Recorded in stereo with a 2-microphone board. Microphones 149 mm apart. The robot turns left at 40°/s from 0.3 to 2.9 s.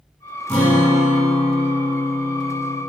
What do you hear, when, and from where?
0.5 s a guitar: 10° left (ahead or behind), 1.3 m; by 2.8 s 20° left (ahead or behind), 1.3 m